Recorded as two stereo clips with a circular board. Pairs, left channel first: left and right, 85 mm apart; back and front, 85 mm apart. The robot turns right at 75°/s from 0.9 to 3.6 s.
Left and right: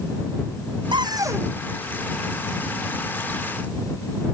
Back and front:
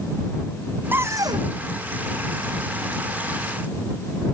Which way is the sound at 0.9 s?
65° right.